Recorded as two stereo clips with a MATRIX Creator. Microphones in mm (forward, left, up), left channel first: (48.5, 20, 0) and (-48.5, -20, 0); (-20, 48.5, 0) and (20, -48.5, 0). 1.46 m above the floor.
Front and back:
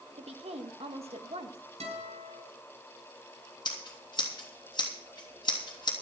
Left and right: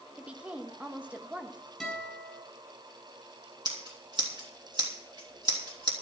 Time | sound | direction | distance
0.2 | a woman speaking | 145° right | 1.6 m
1.8 | a guitar | 155° right | 7.5 m
3.6 | scissors | 20° right | 3 m